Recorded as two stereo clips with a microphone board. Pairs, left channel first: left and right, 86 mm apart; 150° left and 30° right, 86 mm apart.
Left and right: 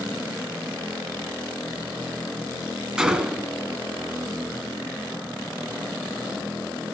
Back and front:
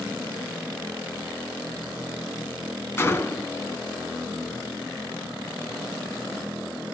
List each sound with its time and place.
3.0 s a gunshot: 165° right, 1.1 m